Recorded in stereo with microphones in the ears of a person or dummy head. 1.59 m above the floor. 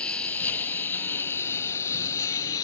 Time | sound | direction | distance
0.0 | a lawn mower | 5° left (ahead or behind) | ?